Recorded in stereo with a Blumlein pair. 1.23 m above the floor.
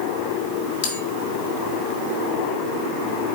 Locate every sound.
0.8 s a bell: 50° left, 1.6 m